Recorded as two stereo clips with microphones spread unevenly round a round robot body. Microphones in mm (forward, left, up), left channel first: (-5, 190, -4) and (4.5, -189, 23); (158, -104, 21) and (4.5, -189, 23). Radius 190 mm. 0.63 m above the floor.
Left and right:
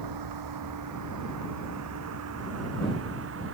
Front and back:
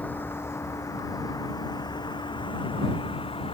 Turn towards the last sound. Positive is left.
turn(degrees=-30)